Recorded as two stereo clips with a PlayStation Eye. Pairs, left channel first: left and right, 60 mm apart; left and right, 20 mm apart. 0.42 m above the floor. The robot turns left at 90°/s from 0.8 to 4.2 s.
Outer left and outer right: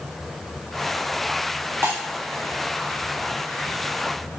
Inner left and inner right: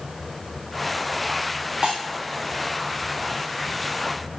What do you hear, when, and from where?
1.8 s breaking glass: 40° right (ahead or behind), 4 m; by 2.0 s 55° right (ahead or behind), 4 m